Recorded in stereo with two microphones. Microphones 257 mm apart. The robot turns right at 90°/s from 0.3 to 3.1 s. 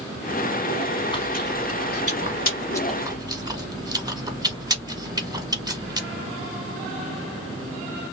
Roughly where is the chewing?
Centre.